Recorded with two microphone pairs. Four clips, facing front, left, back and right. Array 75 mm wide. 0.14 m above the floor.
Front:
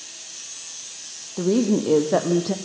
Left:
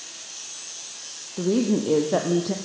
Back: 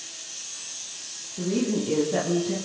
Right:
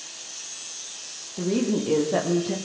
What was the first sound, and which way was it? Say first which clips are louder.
A woman speaking: left 2 dB, front 6 dB; 5° left.